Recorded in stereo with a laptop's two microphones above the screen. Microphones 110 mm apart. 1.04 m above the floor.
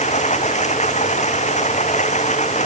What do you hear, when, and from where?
0.0 s running water: 85° left